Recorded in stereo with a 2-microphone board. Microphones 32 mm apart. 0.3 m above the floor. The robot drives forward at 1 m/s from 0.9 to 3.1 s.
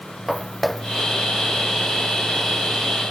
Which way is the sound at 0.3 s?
5° right (ahead or behind).